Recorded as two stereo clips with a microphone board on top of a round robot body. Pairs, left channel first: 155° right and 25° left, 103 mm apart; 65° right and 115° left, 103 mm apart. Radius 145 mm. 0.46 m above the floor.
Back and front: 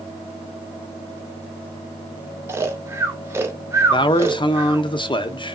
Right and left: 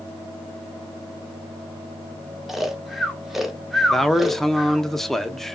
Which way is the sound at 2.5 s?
30° left.